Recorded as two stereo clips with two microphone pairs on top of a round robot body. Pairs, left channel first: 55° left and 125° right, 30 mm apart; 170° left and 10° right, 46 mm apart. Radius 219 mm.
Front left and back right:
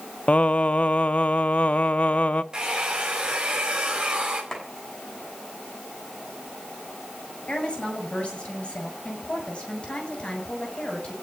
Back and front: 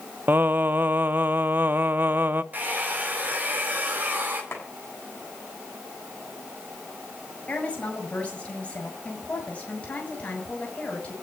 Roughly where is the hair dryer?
Ahead right.